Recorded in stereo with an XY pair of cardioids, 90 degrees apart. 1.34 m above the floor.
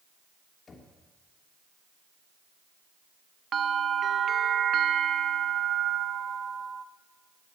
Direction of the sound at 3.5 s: 55° right.